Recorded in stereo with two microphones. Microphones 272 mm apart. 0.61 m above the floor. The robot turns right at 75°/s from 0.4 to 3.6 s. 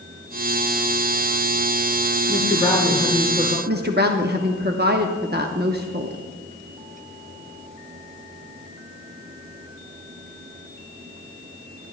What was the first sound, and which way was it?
A woman speaking, 125° left.